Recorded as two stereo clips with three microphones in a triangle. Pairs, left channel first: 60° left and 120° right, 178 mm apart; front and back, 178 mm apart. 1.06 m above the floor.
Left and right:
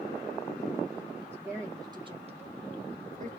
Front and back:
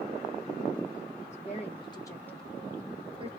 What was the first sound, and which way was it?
A woman speaking, 40° right.